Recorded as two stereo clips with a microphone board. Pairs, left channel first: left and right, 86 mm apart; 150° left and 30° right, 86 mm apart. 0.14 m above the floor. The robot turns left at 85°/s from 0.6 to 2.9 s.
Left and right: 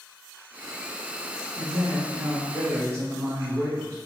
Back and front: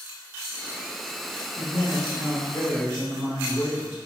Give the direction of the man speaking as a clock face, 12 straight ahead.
3 o'clock.